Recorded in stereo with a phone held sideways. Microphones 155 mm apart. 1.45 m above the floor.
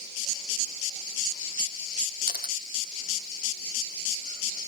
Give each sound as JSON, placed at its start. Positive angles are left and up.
{"t": 2.3, "sound": "a camera shutter", "side_deg": 80}